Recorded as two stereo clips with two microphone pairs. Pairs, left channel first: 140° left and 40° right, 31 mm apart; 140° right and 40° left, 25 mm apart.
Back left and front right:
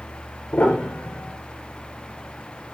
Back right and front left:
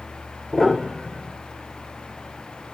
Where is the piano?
125° left, 3.5 m.